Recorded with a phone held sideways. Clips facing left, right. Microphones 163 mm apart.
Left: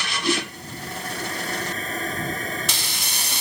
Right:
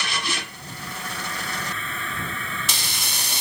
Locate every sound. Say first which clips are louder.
0.2 s a toilet flushing: left 8 dB; 40° left (ahead or behind)